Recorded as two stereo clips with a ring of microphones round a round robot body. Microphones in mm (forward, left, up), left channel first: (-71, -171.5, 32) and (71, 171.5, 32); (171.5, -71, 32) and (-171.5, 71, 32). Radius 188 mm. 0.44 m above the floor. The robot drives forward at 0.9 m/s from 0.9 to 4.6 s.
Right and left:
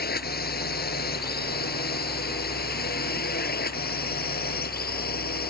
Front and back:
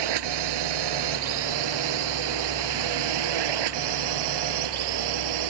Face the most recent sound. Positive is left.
turn(degrees=180)